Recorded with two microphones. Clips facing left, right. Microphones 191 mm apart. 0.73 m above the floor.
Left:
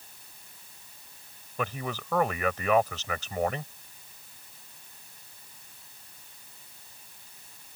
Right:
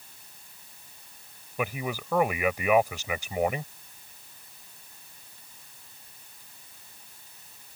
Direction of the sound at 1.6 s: 10° right (ahead or behind).